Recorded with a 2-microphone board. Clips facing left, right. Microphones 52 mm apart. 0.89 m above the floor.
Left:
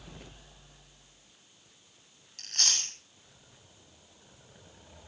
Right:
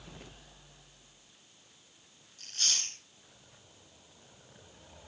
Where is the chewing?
75° left (ahead or behind), 7.5 m.